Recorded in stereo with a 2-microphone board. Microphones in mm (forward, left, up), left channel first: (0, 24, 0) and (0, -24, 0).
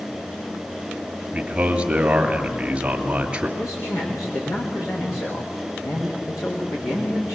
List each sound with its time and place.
1.3 s a man speaking: 25° right (ahead or behind), 1.9 m
3.6 s a man speaking: 80° left, 8 m